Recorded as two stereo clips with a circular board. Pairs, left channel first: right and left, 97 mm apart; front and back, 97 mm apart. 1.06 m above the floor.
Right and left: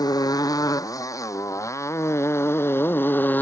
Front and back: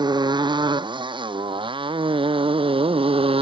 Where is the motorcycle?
140° right; by 3.4 s 165° right.